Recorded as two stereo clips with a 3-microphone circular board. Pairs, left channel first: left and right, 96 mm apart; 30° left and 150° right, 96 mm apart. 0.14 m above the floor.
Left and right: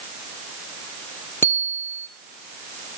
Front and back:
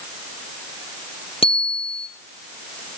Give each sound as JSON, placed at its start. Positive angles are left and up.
{"t": 1.4, "sound": "a bicycle bell", "azimuth_deg": 25, "distance_m": 3.0}